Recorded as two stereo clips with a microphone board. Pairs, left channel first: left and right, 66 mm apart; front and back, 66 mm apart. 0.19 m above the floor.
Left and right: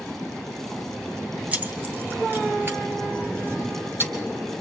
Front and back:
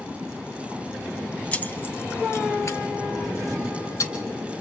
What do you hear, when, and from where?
1.5 s keys jangling: 50° right, 0.9 m; by 4.1 s 35° right, 4.5 m